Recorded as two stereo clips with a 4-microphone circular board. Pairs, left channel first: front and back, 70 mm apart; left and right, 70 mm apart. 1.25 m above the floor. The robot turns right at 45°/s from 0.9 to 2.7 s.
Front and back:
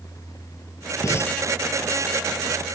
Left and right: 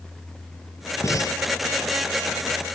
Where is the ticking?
I don't hear ticking.